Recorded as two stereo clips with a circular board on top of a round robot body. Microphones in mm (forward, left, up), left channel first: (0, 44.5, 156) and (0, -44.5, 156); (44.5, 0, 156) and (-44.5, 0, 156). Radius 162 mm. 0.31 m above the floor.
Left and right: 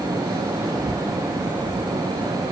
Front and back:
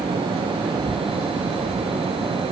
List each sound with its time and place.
Only background noise.